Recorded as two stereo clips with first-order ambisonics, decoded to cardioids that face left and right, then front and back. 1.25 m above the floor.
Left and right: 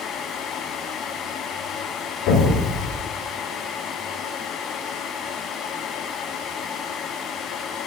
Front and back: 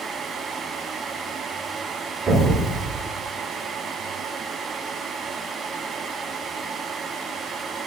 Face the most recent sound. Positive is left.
turn(degrees=110)